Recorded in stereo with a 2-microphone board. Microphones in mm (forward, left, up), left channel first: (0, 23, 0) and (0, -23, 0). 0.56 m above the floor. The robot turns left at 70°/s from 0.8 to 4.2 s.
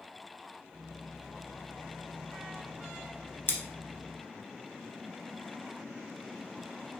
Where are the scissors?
50° left (ahead or behind), 0.5 m; by 3.6 s 45° left (ahead or behind), 0.5 m.